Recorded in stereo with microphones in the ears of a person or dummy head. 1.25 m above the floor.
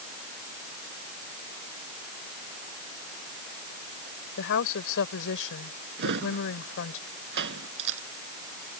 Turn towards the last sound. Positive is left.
turn(degrees=-65)  # may be behind; listen again after turning